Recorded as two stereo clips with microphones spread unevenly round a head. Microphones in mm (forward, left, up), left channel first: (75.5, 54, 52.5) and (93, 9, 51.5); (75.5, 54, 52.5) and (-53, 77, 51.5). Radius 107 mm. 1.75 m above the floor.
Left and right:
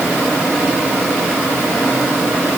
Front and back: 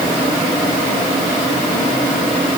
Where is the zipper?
I don't hear a zipper.